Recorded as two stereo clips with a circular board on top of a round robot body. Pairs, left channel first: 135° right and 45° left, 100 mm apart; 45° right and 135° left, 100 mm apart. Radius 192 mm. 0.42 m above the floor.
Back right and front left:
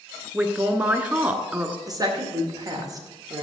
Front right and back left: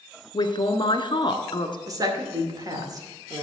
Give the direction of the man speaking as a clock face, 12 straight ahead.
1 o'clock.